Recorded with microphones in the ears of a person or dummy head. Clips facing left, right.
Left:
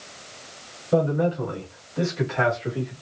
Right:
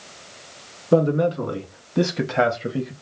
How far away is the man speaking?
About 3 m.